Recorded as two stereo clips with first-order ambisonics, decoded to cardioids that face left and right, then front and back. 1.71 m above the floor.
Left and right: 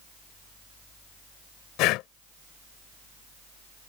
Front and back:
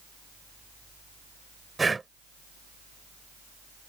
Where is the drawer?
No drawer in this recording.